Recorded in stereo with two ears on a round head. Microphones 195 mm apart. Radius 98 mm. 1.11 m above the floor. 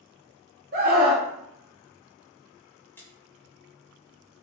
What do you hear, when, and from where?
0.7 s a scream: 45° right (ahead or behind), 1.3 m
3.0 s a splash: 10° left (ahead or behind), 0.8 m